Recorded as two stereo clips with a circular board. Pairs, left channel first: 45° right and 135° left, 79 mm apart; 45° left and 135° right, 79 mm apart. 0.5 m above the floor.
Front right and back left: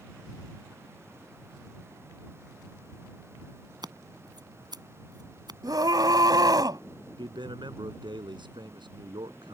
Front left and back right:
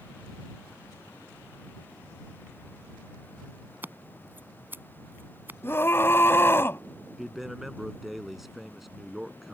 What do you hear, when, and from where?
3.8 s scissors: 160° left
5.6 s a scream: 105° left
7.2 s a man speaking: 135° left